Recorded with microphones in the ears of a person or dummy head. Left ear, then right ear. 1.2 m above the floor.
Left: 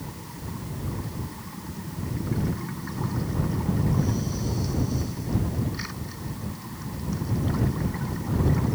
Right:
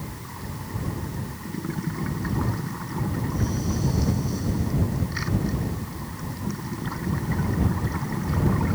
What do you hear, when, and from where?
Only background noise.